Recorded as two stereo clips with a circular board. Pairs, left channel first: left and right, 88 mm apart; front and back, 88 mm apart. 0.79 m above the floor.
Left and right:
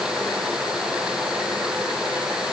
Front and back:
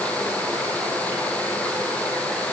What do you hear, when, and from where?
Only background noise.